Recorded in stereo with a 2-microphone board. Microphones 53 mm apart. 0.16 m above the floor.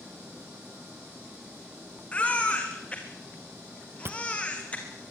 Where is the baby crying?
25° left (ahead or behind), 4 m.